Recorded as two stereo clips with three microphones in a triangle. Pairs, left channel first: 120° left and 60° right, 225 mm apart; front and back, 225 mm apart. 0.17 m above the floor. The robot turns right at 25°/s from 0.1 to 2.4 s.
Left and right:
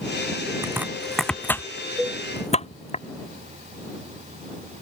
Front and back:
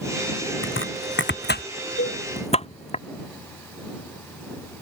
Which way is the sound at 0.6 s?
15° left.